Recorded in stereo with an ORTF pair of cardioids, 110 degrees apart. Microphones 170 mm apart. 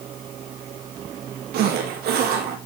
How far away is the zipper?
About 4 m.